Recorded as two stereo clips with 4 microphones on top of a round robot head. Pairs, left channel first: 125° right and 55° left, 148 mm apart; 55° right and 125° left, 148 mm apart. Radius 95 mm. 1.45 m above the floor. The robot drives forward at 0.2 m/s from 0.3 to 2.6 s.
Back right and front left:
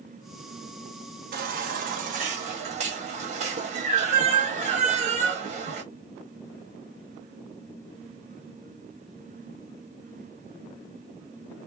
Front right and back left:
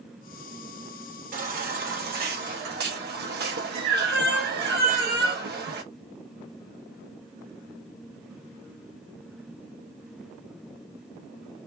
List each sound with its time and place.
1.3 s a baby crying: 90° left, 1.0 m; by 5.8 s 105° left, 1.0 m